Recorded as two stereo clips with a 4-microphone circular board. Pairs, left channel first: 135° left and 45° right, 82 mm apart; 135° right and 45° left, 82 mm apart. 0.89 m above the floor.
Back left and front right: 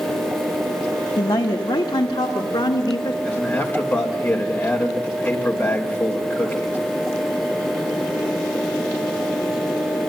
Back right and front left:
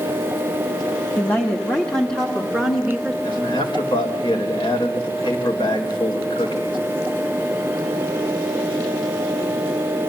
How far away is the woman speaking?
About 1.5 m.